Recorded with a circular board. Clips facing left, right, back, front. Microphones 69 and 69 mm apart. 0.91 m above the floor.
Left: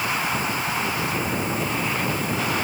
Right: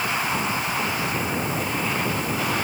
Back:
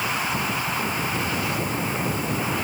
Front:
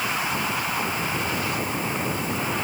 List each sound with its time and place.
Only background noise.